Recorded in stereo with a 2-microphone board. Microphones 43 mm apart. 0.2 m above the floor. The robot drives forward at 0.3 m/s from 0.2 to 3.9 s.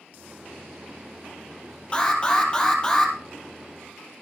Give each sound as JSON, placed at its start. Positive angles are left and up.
{"t": 1.9, "sound": "an alarm", "side_deg": 25, "distance_m": 3.5}